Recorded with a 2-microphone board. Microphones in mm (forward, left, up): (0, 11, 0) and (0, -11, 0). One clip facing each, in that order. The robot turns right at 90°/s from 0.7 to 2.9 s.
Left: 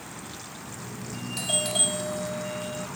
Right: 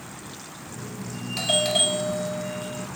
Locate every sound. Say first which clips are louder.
1.4 s a doorbell: right 5 dB; 105° right; by 2.9 s 30° left